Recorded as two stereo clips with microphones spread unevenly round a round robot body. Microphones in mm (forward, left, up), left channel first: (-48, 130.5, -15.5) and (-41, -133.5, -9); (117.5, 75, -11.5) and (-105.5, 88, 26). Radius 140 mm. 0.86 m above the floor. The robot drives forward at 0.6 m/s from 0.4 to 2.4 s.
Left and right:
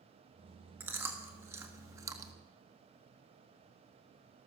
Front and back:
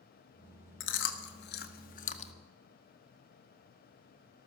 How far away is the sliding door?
No sliding door in this recording.